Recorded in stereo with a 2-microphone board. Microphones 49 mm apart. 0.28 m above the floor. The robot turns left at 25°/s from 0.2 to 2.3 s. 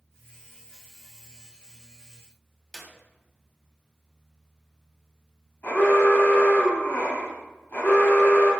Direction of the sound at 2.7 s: 5° right (ahead or behind).